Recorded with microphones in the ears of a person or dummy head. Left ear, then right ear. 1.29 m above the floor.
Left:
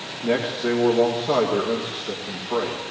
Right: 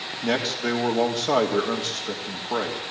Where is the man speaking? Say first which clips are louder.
Left 2 dB; 45° right (ahead or behind), 3 m.